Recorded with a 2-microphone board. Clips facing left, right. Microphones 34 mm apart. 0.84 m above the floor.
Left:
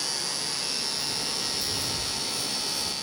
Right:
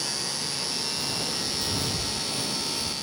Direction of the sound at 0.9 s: 45° right (ahead or behind).